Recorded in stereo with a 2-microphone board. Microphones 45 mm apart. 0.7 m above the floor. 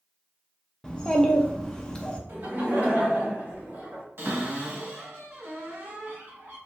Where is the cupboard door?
50° right (ahead or behind), 1.5 m.